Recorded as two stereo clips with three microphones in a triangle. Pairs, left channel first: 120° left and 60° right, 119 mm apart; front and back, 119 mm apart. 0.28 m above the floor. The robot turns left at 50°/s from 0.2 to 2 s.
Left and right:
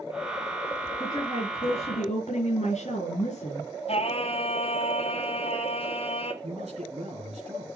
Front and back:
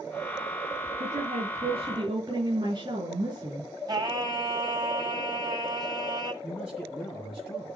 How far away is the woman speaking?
About 5.5 m.